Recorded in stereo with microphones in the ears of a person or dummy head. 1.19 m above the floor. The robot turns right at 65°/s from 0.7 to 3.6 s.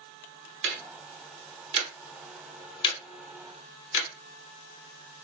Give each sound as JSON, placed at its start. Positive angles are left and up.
{"t": 0.6, "sound": "ticking", "side_deg": -60, "distance_m": 0.9}